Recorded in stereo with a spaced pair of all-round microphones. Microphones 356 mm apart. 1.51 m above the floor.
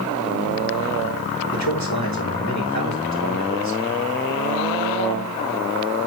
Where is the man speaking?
50° left (ahead or behind), 3 m.